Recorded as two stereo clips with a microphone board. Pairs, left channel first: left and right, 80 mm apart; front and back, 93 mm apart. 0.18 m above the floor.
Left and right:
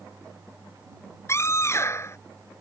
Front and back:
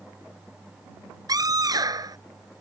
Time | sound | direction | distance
1.3 | a scream | 140° left | ?